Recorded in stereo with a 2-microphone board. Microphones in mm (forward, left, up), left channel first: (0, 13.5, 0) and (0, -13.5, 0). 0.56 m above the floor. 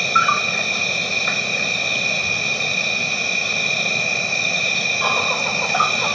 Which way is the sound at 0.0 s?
10° left (ahead or behind).